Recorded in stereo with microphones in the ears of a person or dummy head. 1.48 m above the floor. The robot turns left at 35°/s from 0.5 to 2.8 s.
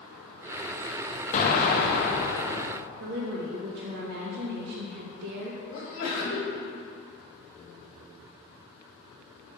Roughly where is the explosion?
Behind left.